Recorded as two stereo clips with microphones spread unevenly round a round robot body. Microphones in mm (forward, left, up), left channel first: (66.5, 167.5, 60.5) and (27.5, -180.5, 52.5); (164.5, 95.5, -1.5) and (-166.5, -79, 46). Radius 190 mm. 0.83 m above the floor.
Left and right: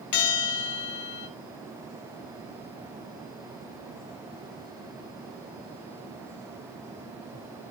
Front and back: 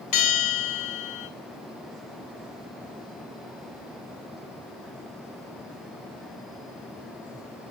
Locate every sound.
0.1 s a bell: 70° left, 1.8 m